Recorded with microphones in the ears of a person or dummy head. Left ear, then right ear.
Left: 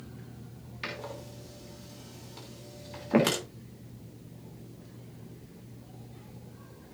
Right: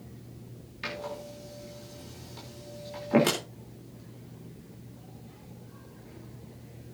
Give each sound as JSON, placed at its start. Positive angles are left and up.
{"t": 0.8, "sound": "a door slam", "side_deg": 5, "distance_m": 3.0}